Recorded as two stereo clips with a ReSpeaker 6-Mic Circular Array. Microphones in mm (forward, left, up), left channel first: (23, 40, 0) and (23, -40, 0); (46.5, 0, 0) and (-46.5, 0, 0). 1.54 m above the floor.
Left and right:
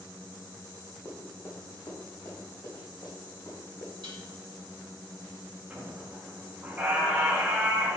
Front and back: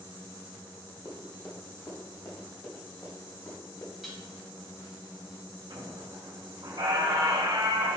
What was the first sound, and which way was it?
Running footsteps, 45° left.